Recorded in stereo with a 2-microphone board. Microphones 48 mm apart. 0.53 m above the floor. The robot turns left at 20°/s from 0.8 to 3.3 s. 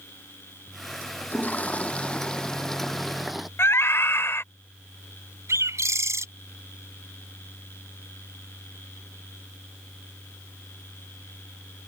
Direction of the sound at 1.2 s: 40° left.